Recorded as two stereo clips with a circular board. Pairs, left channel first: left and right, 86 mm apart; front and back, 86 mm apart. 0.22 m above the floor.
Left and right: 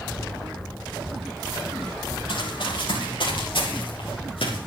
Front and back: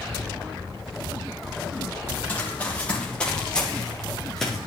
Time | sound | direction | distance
2.3 | running footsteps | 70° left | 5.5 m